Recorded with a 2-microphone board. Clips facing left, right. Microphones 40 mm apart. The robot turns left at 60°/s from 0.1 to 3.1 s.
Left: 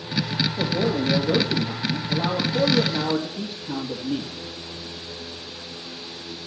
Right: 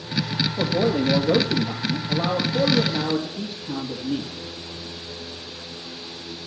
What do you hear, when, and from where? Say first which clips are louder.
0.6 s a man speaking: right 3 dB; 35° right, 3 m; by 4.3 s 170° left, 3 m